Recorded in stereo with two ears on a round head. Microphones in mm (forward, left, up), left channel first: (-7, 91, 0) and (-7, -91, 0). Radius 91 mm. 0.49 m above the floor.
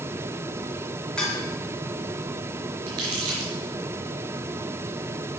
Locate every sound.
1.2 s dishes clattering: 5° left (ahead or behind), 3.5 m
2.9 s crumpling: 85° right, 4.5 m